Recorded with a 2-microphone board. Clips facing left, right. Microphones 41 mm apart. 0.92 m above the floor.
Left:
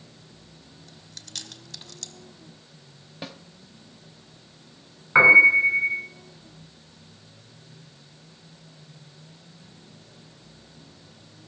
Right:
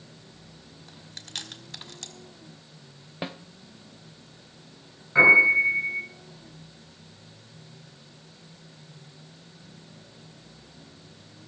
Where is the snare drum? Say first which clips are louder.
Right 4 dB; 25° right (ahead or behind), 0.7 m.